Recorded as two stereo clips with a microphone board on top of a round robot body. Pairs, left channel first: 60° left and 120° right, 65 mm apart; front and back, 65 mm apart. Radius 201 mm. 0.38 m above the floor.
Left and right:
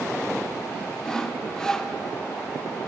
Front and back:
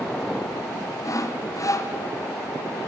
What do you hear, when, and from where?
1.0 s sawing: 20° right, 1.5 m